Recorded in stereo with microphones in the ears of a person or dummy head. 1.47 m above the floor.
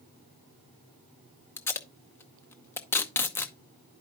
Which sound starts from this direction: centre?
Tape being pulled, at 1.6 s.